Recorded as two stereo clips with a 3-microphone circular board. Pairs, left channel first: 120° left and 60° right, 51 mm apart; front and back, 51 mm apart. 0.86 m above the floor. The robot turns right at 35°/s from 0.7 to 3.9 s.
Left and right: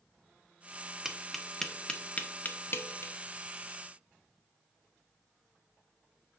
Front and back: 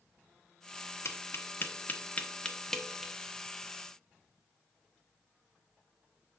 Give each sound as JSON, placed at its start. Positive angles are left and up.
{"t": 1.1, "sound": "tapping", "azimuth_deg": 20, "distance_m": 0.8}